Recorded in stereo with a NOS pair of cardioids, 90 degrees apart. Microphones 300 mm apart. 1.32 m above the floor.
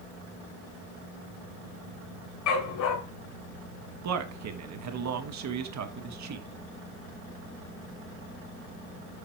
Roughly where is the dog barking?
Left.